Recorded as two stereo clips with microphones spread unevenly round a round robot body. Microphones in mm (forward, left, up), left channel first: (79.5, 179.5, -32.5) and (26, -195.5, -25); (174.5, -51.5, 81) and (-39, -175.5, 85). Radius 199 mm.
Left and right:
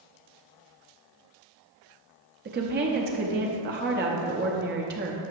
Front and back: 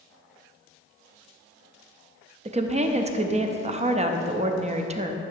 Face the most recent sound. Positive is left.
turn(degrees=-125)